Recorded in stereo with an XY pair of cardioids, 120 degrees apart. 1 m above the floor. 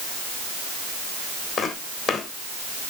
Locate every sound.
1.6 s footsteps: 45° left, 3 m